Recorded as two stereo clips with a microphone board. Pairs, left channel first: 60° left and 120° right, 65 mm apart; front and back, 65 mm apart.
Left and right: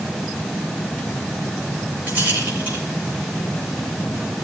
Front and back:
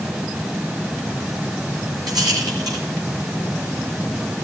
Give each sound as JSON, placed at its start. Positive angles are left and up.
{"t": 2.1, "sound": "a rattle", "azimuth_deg": 180, "distance_m": 7.5}